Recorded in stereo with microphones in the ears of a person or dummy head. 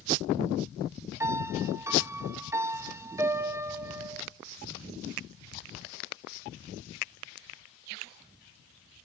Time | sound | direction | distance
1.2 | a piano | 15° right (ahead or behind) | 0.8 m